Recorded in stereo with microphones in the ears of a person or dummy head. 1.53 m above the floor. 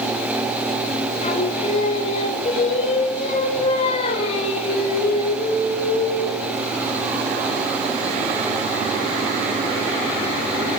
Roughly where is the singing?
Left.